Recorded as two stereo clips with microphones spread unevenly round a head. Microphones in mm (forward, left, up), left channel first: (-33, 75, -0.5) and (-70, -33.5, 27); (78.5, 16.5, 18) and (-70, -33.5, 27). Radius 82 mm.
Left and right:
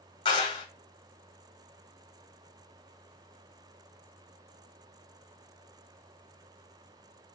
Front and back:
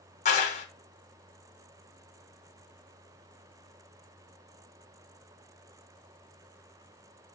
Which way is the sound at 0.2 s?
45° left.